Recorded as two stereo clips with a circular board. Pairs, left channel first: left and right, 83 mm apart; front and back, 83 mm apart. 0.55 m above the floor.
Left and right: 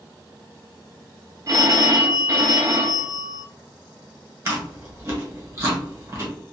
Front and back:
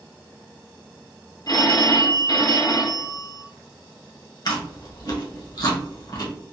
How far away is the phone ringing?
About 0.6 m.